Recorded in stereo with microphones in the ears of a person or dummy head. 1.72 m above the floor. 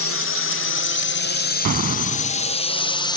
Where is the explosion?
40° right (ahead or behind).